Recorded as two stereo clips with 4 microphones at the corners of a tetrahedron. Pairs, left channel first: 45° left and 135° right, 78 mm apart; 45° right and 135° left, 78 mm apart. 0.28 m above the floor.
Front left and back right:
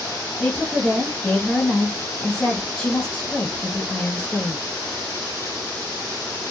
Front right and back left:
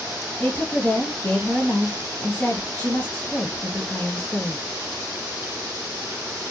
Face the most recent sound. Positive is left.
turn(degrees=-20)